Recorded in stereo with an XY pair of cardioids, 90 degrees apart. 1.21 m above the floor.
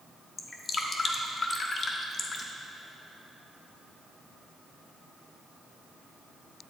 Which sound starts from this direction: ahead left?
Dripping, at 0.4 s.